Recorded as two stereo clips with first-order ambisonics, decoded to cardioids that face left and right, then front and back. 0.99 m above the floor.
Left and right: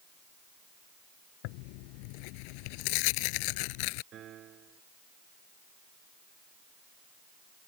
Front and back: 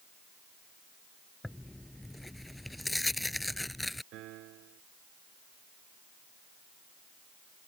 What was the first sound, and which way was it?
Tearing paper, 85° left.